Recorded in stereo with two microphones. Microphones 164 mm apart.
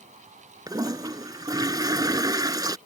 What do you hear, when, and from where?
0.7 s a toilet flushing: 25° right (ahead or behind)